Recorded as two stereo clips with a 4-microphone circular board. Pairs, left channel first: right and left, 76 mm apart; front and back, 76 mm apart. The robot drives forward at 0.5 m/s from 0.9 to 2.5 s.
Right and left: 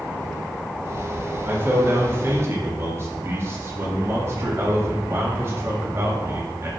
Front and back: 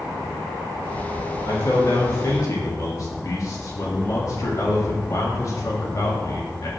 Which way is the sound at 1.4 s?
30° left.